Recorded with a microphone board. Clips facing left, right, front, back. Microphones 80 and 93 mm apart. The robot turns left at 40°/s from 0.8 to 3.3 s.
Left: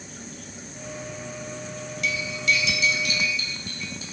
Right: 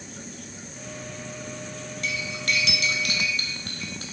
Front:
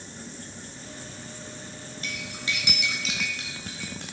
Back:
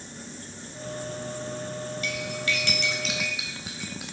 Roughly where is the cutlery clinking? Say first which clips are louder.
Left 4 dB, back 2 dB; ahead right.